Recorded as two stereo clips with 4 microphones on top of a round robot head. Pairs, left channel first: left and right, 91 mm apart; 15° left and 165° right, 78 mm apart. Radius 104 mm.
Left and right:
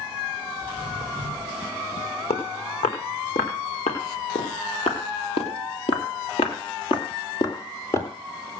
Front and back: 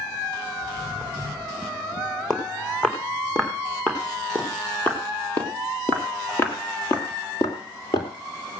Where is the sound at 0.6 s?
85° left, 10 m.